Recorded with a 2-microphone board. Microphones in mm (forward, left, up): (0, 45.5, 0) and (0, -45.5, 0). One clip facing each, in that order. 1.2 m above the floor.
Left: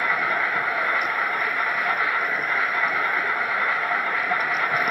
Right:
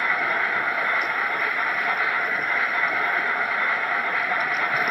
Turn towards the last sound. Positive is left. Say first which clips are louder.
# left 1 dB
turn(degrees=0)  # may be behind; listen again after turning